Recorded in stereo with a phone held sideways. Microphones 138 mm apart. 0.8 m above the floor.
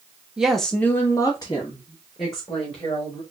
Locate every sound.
0.4 s a woman speaking: 5° right (ahead or behind), 0.8 m; by 3.2 s 40° left (ahead or behind), 2 m